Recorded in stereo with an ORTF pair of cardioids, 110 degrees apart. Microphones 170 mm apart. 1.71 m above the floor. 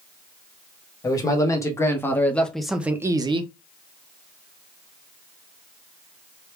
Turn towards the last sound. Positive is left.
turn(degrees=-80)